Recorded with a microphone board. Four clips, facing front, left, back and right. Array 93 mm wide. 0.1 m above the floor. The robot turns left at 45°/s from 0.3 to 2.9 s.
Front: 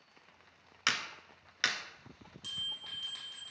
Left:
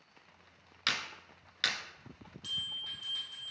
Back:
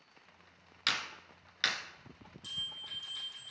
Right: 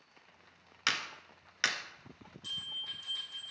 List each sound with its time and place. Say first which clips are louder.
0.9 s a clap: right 1 dB, front 2 dB; 30° right, 0.9 m; by 1.8 s 75° right, 0.9 m
2.4 s a bell: left 2 dB, front 2 dB; 45° left, 3 m; by 3.5 s 25° left, 3 m